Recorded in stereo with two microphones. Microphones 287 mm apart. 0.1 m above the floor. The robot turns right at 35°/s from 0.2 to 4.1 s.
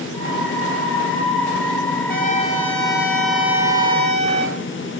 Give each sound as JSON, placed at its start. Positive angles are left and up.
{"t": 2.1, "sound": "a trumpet", "azimuth_deg": 140, "distance_m": 1.6}